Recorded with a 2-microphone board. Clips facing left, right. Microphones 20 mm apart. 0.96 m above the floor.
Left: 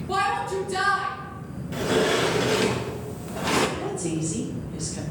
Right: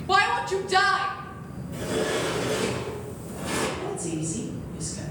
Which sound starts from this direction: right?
A shout, at 0.1 s.